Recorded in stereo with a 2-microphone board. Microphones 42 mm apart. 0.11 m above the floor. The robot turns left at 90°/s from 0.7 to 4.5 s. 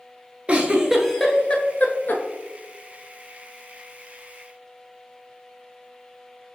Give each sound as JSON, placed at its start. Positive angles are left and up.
{"t": 0.5, "sound": "a giggle", "side_deg": -25, "distance_m": 0.6}